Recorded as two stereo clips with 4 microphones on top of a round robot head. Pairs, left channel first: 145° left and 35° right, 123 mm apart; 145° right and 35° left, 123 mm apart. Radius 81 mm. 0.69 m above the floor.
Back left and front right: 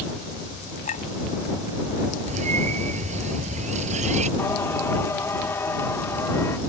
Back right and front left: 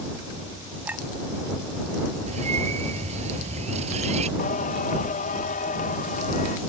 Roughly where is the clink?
Behind left.